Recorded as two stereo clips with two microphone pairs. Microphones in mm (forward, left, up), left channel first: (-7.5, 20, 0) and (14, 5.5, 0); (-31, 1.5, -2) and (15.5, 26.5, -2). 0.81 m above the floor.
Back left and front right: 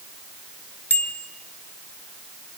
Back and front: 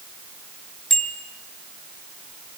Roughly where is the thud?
No thud in this recording.